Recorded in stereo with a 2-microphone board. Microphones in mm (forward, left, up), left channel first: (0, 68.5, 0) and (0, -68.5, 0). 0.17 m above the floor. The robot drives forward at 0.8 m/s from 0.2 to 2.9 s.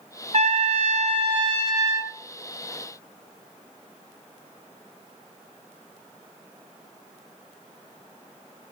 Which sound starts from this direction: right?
A trumpet, at 0.3 s.